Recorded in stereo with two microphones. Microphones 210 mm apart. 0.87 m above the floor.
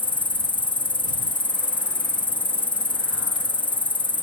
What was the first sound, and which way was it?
An insect, 25° left (ahead or behind).